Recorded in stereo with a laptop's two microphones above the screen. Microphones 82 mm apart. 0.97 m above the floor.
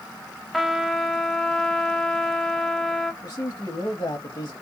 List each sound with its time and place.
0.5 s a trumpet: centre (ahead or behind), 0.6 m
3.2 s a man speaking: 60° left (ahead or behind), 1.3 m